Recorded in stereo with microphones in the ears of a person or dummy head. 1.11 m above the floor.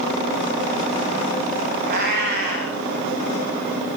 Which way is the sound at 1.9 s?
55° right (ahead or behind).